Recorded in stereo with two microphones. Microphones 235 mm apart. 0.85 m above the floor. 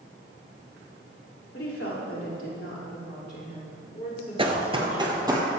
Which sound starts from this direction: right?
Running footsteps, at 4.4 s.